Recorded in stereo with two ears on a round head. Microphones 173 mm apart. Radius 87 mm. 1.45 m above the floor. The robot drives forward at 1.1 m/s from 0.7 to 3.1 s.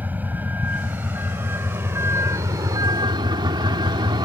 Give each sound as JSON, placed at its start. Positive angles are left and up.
{"t": 0.0, "sound": "a vehicle", "side_deg": -10}